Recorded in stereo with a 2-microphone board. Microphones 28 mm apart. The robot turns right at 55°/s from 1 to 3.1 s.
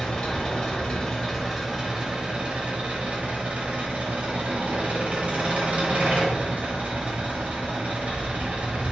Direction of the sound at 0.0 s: 150° left.